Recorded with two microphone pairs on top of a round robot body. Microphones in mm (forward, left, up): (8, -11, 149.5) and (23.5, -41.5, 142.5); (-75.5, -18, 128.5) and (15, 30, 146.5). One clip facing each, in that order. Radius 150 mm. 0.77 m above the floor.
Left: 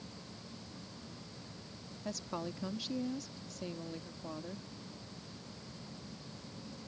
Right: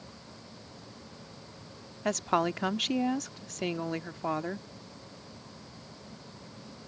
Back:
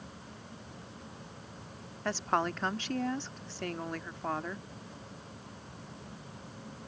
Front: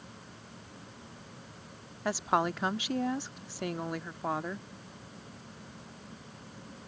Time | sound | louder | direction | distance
2.0 | a woman speaking | right 13 dB, front 2 dB | 55° right | ?